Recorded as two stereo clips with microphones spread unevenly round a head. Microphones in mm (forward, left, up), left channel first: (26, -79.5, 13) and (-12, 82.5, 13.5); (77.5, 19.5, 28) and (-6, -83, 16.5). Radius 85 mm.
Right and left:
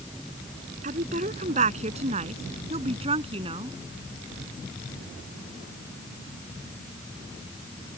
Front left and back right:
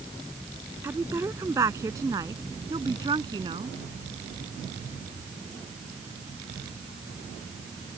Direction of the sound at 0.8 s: 155° left.